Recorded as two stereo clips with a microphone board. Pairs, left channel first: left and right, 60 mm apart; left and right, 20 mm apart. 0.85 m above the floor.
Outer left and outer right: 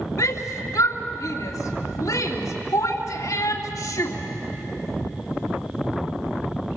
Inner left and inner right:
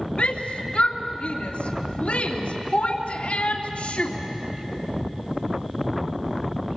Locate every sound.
0.2 s a shout: 70° left (ahead or behind), 2.5 m